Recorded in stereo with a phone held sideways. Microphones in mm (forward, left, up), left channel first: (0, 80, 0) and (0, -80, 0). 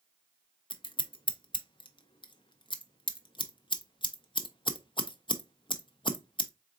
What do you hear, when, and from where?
0.7 s scissors: 35° left (ahead or behind), 0.5 m